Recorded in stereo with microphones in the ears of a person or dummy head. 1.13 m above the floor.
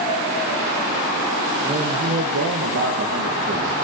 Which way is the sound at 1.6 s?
15° right (ahead or behind).